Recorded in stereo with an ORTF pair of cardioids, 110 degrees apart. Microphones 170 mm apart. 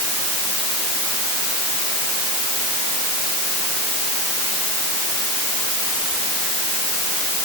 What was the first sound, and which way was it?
Only background noise.